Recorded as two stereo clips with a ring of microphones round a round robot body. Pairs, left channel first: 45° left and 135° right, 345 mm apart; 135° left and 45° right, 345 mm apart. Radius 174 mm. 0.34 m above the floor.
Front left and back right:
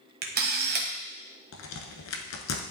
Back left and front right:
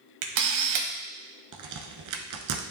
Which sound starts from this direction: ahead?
A crack, at 1.5 s.